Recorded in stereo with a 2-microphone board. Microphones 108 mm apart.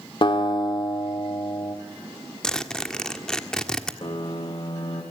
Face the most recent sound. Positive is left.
turn(degrees=55)  # may be behind; listen again after turning